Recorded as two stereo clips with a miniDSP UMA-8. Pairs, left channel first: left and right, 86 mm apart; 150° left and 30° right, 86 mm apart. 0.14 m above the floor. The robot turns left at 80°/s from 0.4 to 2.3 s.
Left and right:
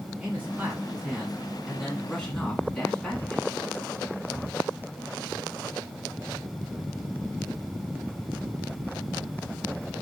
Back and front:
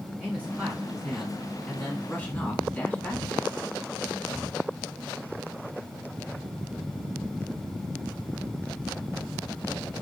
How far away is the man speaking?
About 1.0 m.